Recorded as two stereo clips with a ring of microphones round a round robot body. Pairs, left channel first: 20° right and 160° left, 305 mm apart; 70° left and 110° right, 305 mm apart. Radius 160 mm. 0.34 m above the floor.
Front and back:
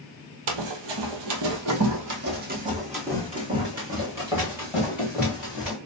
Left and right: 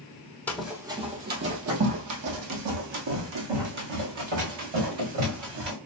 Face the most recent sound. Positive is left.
turn(degrees=-115)